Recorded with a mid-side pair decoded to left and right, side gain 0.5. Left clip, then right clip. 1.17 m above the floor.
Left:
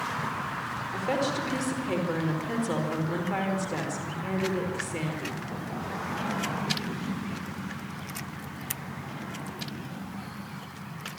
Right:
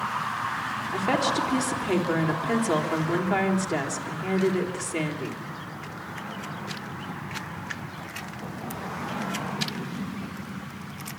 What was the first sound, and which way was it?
A woman speaking, 35° right.